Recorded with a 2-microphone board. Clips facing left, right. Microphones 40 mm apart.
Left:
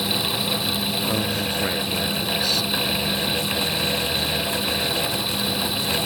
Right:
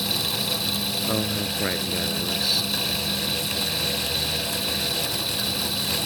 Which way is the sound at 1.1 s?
5° right (ahead or behind).